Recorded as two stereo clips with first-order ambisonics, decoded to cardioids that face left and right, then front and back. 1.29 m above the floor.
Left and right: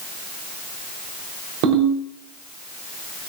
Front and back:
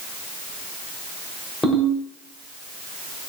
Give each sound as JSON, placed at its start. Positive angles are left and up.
{"t": 1.6, "sound": "a ringtone", "azimuth_deg": -80, "distance_m": 3.5}